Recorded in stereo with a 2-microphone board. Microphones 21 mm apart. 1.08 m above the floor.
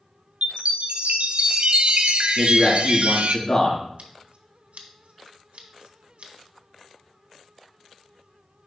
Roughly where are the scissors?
Right.